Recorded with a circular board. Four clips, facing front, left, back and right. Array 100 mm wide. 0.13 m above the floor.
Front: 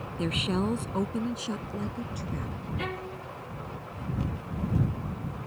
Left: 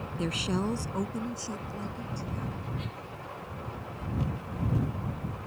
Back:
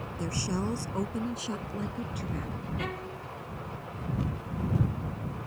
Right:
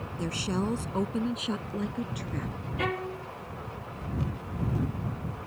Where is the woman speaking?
25° left; by 2.5 s 95° right.